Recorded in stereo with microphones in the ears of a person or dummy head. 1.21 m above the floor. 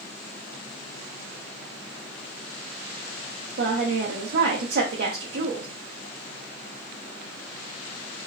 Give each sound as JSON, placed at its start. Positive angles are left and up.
{"t": 3.6, "sound": "a woman speaking", "side_deg": -45, "distance_m": 1.0}